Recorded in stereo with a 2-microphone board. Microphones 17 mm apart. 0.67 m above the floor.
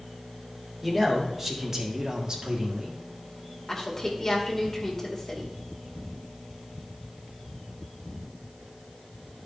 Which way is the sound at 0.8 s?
10° right (ahead or behind).